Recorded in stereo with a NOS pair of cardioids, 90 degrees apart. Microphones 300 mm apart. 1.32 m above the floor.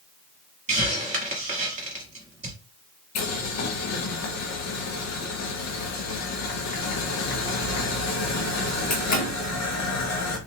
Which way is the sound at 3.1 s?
65° left.